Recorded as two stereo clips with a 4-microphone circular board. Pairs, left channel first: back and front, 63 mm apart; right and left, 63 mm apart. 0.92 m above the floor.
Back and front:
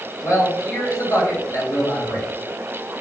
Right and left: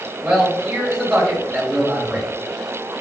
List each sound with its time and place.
0.2 s a man speaking: 175° left, 1.7 m